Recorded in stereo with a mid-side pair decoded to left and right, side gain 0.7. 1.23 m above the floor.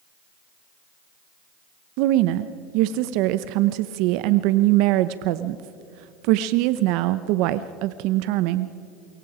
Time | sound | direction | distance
2.0 | a woman speaking | 70° right | 0.8 m